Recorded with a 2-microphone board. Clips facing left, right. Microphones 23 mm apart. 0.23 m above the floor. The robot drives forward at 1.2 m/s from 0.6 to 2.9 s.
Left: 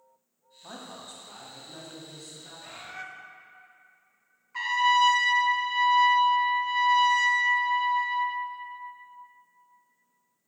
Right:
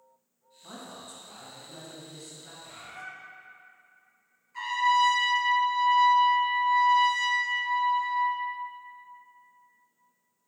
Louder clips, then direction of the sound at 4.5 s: Left 2 dB; 30° left (ahead or behind).